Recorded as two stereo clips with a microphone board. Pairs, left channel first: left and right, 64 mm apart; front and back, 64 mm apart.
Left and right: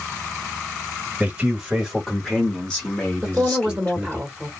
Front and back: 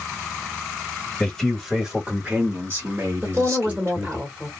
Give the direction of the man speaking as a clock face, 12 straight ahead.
2 o'clock.